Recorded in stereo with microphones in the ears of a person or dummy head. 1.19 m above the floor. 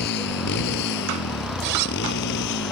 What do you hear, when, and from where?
0.0 s a motorcycle: 60° left (ahead or behind); by 2.7 s 65° left (ahead or behind)
1.6 s a zipper: 50° right (ahead or behind)